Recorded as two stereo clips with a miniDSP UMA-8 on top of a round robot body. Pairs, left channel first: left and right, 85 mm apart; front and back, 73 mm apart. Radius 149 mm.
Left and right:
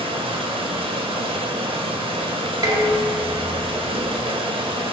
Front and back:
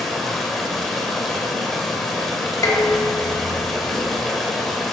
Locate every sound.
0.0 s running water: 90° right, 1.2 m
2.6 s dishes clattering: 45° right, 1.7 m